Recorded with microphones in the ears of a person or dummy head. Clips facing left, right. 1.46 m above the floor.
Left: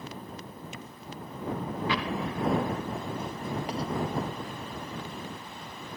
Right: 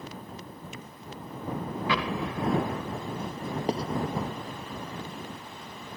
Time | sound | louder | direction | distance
1.9 | an explosion | right 2 dB | 75° right (ahead or behind) | ?
3.7 | writing | right 7 dB | 30° right (ahead or behind) | ?